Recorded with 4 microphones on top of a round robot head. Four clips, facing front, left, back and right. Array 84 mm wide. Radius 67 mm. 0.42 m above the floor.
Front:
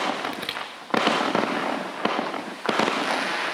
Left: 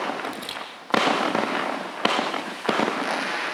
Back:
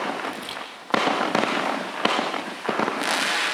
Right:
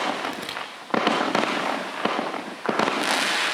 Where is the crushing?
20° right, 6.5 m.